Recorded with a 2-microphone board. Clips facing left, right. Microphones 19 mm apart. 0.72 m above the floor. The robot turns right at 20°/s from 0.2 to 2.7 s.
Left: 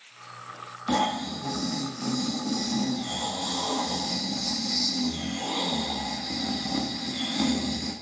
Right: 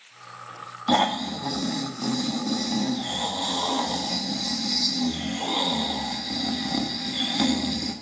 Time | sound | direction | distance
0.9 | snoring | 75° right | 0.7 m